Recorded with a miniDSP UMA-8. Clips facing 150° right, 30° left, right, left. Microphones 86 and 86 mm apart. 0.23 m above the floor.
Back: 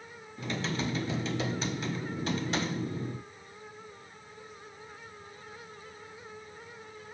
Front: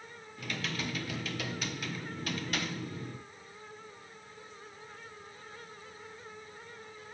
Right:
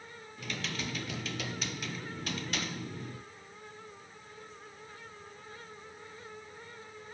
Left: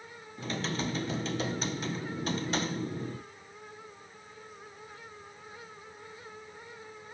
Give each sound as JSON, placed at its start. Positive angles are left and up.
{"t": 0.4, "sound": "typing on a keyboard", "azimuth_deg": 150, "distance_m": 0.8}